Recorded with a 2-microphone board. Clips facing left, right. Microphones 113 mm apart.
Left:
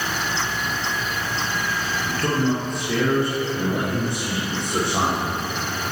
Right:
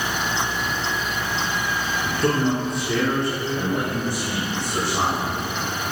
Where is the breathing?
No breathing in this recording.